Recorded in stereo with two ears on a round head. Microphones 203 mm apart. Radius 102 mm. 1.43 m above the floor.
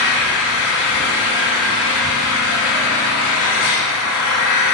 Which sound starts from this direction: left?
An engine running, at 0.0 s.